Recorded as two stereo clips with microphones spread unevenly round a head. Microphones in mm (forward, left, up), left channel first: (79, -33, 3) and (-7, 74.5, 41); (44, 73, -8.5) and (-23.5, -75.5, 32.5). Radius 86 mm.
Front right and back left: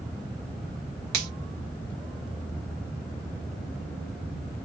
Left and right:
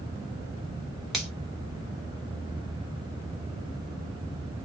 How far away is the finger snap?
About 1.0 m.